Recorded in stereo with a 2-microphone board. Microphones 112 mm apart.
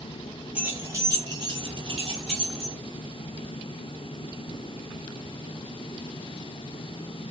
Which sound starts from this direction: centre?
Keys jangling, at 0.6 s.